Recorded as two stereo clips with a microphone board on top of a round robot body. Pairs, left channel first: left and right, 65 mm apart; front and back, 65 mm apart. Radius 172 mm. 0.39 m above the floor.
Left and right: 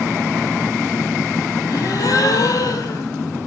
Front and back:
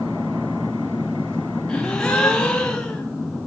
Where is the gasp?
80° left, 1.6 m.